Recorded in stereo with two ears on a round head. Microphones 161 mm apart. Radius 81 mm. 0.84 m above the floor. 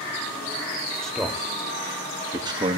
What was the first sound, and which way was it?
A man speaking, 5° left (ahead or behind).